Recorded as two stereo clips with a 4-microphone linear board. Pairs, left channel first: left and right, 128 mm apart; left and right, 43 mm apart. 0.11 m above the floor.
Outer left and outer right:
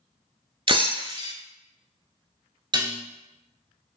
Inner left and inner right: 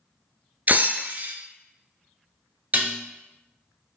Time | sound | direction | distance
0.7 | breaking glass | 45° right (ahead or behind) | 0.5 m
2.7 | dishes clattering | 40° right (ahead or behind) | 1.2 m